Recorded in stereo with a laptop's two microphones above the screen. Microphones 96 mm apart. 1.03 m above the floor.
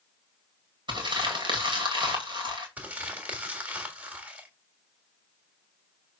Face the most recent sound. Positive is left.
turn(degrees=-15)  # may be behind; listen again after turning